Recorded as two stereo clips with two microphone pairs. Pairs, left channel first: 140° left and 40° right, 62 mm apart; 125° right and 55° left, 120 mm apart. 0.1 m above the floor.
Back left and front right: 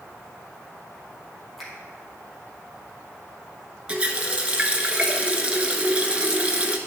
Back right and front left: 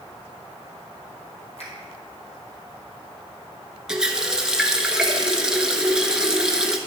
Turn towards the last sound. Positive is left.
turn(degrees=-15)